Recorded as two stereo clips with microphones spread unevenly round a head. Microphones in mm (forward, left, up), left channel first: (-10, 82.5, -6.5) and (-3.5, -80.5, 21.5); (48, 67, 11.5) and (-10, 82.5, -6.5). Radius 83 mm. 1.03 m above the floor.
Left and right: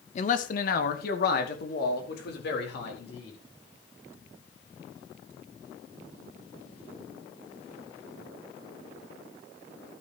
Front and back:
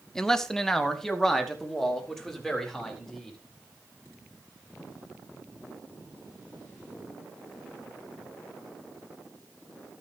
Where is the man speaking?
80° left, 1.0 m; by 3.4 s 70° left, 5 m.